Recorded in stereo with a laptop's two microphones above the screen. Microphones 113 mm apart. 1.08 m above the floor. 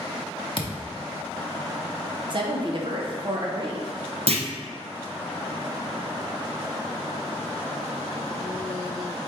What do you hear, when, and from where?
0.6 s a thud: 45° left (ahead or behind), 0.6 m
2.3 s a woman speaking: 45° right (ahead or behind), 0.8 m
4.3 s a clunk: 65° right (ahead or behind), 0.6 m